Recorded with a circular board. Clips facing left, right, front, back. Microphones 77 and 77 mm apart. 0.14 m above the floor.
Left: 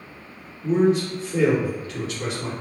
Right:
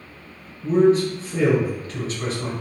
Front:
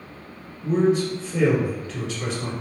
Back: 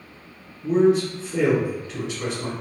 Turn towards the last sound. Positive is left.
turn(degrees=-95)